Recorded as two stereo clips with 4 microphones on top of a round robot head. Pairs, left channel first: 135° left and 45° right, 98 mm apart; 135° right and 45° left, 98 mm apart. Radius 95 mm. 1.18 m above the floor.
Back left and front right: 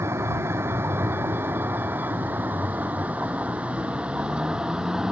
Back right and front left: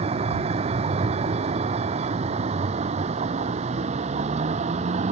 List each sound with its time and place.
0.0 s a vehicle: 20° left; by 5.1 s 40° left